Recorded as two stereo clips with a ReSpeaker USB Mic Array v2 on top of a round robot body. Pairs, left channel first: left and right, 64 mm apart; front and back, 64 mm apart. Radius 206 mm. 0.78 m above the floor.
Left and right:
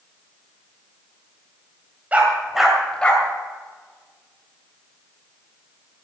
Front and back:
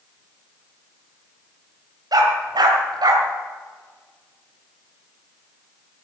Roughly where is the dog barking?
Behind.